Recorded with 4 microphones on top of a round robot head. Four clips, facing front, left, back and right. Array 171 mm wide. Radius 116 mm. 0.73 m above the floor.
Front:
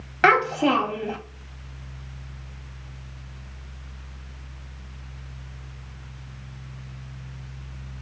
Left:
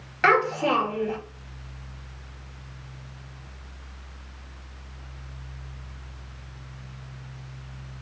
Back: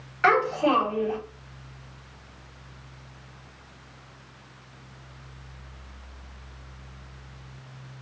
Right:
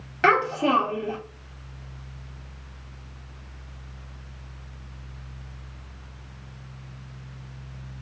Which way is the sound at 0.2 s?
15° right.